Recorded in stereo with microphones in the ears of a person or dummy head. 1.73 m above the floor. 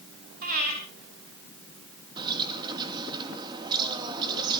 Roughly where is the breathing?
Right.